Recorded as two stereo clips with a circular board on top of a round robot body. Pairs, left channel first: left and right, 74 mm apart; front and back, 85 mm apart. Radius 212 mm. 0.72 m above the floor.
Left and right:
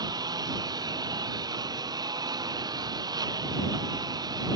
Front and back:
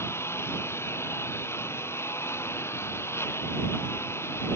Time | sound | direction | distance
0.0 | a lawn mower | 60° right | ?